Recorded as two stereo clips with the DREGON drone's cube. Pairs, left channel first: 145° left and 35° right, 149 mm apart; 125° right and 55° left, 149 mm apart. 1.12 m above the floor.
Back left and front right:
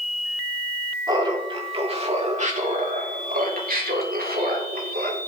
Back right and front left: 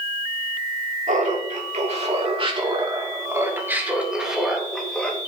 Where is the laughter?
25° left, 3 m; by 5.2 s 40° right, 3.5 m.